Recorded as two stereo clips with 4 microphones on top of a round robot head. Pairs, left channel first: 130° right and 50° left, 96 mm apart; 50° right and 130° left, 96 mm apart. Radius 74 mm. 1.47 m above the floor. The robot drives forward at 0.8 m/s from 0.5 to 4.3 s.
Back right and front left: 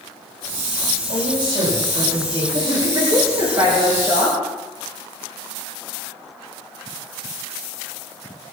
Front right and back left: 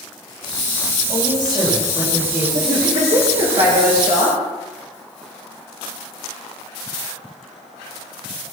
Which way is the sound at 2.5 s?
95° left.